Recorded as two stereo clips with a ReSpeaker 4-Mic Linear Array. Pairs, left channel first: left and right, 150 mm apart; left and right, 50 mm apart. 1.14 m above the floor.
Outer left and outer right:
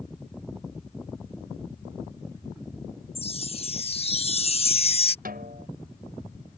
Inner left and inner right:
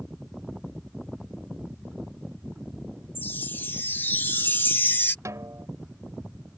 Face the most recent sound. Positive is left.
turn(degrees=-85)